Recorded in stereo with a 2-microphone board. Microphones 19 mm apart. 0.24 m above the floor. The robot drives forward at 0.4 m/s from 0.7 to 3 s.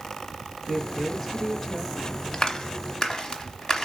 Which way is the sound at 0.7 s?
15° left (ahead or behind).